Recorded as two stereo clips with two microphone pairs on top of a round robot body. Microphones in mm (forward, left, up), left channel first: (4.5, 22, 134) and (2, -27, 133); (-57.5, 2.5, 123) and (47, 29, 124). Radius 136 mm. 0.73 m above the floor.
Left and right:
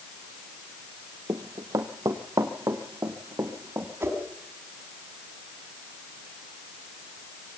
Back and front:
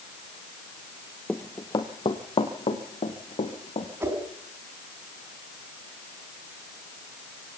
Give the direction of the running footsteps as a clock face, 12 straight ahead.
3 o'clock.